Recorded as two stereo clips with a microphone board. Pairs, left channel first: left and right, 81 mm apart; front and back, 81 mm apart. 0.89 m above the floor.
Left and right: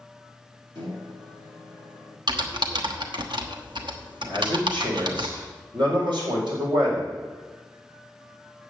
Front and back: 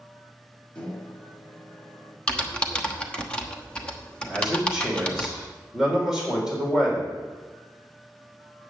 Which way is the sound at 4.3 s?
95° right.